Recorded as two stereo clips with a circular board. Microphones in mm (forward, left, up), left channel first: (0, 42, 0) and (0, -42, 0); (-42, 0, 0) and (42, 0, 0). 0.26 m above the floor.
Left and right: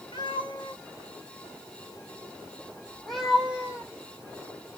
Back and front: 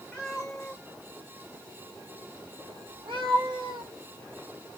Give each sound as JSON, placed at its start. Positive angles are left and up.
{"t": 0.1, "sound": "a cat meowing", "azimuth_deg": 100, "distance_m": 1.5}